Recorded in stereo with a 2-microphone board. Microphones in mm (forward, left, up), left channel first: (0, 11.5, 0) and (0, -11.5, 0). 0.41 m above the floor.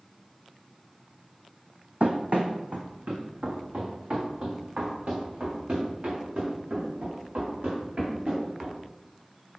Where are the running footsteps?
70° right (ahead or behind), 1.0 m; by 8.8 s 85° right, 5.5 m.